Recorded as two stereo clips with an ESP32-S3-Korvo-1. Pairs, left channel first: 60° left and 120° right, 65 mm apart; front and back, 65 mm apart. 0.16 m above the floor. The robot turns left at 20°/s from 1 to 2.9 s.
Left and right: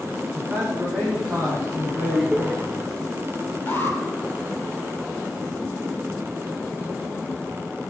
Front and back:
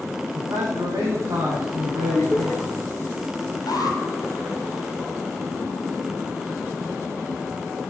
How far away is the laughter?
About 2.5 m.